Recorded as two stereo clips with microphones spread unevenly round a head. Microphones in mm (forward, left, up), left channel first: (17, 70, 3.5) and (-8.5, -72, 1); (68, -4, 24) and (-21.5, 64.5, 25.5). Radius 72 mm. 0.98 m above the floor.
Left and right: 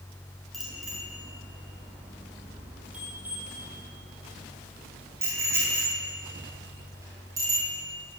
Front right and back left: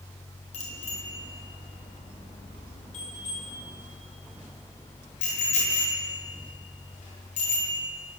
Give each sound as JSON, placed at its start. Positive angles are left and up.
{"t": 0.5, "sound": "a bicycle bell", "azimuth_deg": -10, "distance_m": 9.5}